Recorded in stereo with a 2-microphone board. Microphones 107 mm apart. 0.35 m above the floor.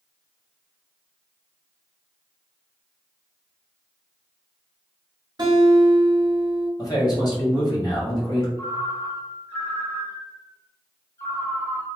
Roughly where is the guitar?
Right.